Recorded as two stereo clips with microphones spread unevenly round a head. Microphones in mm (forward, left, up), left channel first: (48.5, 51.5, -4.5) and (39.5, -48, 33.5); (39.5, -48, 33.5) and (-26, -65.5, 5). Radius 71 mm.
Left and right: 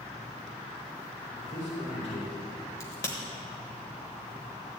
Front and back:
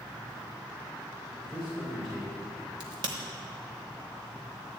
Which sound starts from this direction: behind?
A crack, at 2.8 s.